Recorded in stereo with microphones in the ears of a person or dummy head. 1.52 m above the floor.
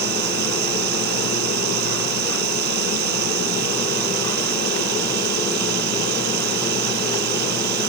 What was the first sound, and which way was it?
Running water, 60° right (ahead or behind).